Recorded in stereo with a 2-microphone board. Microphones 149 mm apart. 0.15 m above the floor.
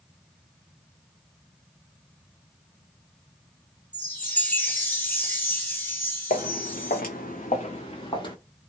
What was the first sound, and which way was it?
A chime, 10° left (ahead or behind).